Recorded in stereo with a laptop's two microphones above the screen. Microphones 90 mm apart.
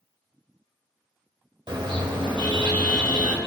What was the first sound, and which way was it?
A car horn, 60° right (ahead or behind).